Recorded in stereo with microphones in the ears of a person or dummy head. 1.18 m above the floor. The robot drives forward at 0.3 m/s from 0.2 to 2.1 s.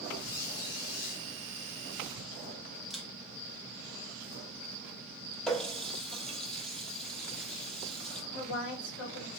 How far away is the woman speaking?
About 2.5 m.